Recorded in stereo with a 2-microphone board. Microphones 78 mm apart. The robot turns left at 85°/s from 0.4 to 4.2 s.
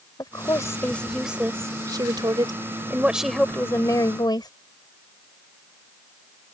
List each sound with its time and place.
0.2 s a woman speaking: 65° left; by 4.5 s 100° left